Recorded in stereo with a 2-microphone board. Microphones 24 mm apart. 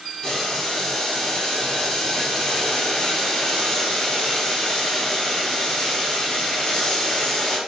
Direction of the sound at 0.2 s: 35° left (ahead or behind).